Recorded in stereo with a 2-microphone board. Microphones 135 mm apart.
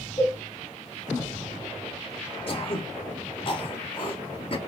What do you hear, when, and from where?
0.2 s a cowbell: 25° left (ahead or behind), 1.8 m
2.5 s throat clearing: 40° left (ahead or behind), 0.7 m